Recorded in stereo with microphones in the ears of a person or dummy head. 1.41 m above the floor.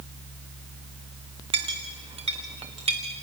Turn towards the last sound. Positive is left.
turn(degrees=-25)  # may be behind; listen again after turning